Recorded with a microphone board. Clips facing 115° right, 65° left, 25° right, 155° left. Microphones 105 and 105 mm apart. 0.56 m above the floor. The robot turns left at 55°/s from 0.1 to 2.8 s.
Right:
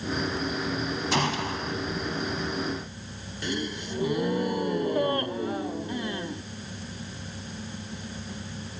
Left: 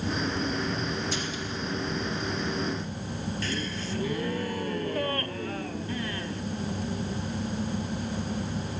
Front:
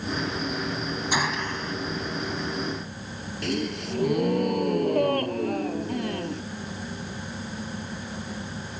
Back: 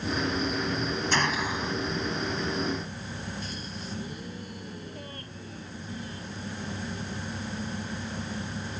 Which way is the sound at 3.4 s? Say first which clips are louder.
Right 1 dB, front 10 dB; 40° right.